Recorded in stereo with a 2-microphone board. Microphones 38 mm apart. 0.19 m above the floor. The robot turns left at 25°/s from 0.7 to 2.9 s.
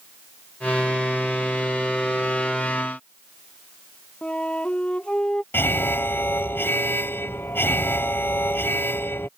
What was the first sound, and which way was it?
A flute, 30° left (ahead or behind).